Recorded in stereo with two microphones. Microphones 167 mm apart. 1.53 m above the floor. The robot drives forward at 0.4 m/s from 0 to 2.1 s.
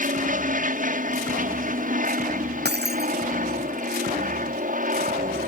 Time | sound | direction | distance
0.0 | an aircraft | 55° right (ahead or behind) | ?
2.6 | breaking glass | 80° right | ?